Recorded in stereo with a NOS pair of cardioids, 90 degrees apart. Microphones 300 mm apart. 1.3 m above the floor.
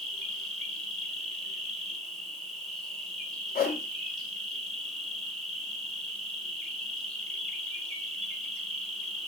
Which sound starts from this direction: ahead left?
A whoosh, at 3.5 s.